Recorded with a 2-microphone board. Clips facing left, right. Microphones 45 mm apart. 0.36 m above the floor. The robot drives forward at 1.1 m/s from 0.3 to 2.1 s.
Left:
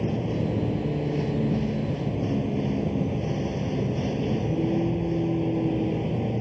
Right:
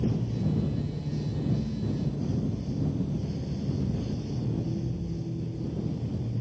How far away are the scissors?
I don't hear scissors.